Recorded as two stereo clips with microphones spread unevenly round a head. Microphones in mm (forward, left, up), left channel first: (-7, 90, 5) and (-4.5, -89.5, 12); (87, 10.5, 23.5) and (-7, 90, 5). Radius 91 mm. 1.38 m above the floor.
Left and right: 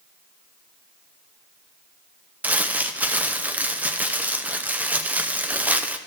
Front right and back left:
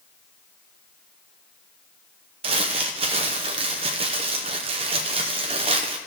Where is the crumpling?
170° right, 0.6 m.